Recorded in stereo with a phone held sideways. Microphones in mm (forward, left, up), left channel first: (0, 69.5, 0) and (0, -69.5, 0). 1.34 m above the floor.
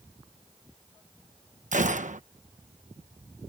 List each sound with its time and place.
1.7 s a gunshot: 65° right (ahead or behind)